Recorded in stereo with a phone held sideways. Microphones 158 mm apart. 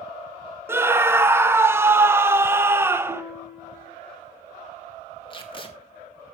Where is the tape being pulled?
35° left (ahead or behind), 1.9 m.